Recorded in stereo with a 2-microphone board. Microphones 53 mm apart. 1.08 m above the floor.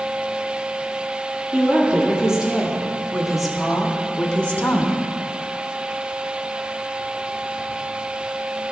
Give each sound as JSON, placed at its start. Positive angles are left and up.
{"t": 1.5, "sound": "a woman speaking", "side_deg": -20, "distance_m": 2.5}